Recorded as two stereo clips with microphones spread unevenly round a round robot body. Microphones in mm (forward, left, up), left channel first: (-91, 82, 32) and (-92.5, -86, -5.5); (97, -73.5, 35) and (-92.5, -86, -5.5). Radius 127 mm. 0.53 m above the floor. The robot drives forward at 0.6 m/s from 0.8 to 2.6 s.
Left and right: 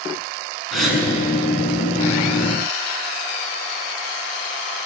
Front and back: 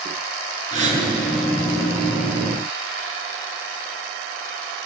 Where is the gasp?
Straight behind, 5.5 m.